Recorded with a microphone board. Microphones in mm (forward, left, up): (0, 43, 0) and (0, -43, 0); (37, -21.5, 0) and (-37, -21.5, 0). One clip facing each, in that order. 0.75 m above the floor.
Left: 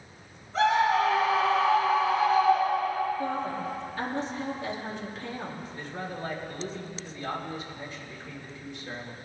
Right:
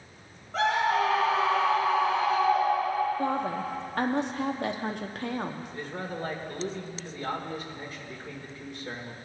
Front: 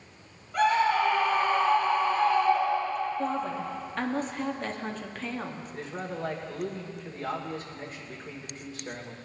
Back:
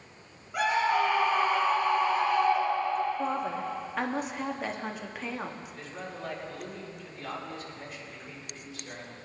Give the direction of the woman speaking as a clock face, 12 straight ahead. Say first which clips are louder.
Right 2 dB, even; 3 o'clock.